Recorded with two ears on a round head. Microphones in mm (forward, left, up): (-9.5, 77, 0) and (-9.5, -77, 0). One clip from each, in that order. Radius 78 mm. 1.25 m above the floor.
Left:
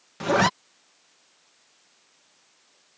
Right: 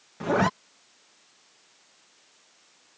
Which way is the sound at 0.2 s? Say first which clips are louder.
Left 3 dB; 80° left.